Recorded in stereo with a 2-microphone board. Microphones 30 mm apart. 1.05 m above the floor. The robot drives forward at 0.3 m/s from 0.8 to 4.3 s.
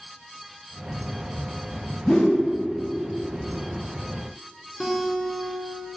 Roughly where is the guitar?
Centre.